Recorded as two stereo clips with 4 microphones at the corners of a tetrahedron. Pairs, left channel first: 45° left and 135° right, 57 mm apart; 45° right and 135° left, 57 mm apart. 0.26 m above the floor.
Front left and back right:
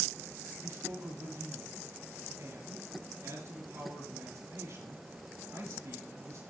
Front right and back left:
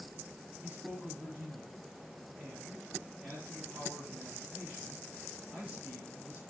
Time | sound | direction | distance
0.6 | a man speaking | 155° right | 5 m